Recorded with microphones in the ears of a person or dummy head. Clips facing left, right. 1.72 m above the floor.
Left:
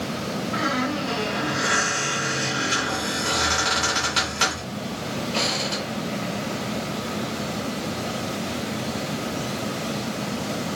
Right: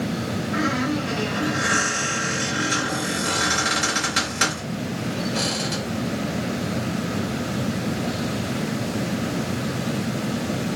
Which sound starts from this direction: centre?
A squeak, at 0.5 s.